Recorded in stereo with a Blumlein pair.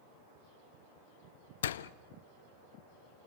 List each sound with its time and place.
1.6 s a door slam: 60° left, 0.6 m